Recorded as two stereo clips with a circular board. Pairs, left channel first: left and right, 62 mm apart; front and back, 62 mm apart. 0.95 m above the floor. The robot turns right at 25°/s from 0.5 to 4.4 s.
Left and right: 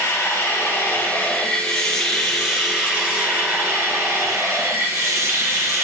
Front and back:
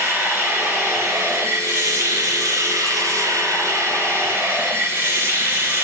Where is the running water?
135° left, 3.5 m; by 5.8 s 130° right, 3.5 m.